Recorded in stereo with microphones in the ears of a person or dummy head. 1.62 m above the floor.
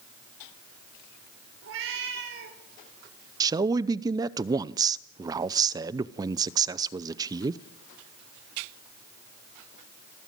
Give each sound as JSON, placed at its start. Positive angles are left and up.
{"t": 1.6, "sound": "a cat meowing", "side_deg": -65, "distance_m": 3.5}
{"t": 3.4, "sound": "a man speaking", "side_deg": -20, "distance_m": 0.6}